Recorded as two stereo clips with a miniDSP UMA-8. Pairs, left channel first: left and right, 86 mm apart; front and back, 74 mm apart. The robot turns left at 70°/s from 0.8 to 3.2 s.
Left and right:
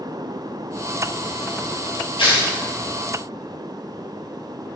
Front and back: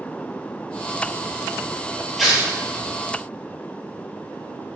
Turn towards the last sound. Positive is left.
turn(degrees=20)